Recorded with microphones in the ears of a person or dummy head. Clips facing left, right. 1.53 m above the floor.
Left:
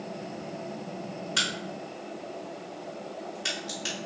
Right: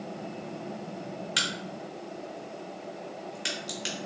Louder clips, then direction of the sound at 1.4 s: Left 1 dB; 20° right (ahead or behind).